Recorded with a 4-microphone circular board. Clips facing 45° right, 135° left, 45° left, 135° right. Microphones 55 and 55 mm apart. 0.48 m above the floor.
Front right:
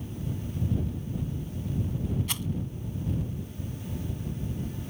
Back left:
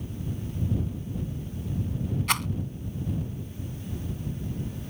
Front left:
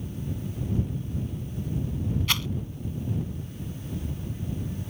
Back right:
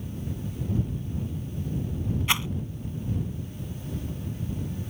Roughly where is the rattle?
Behind left.